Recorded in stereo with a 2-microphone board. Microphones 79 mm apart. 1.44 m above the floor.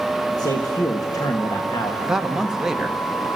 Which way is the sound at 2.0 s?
5° right (ahead or behind).